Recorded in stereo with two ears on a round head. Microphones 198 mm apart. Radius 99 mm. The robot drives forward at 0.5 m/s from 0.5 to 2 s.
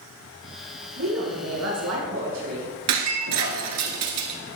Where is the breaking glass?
80° right, 1.5 m.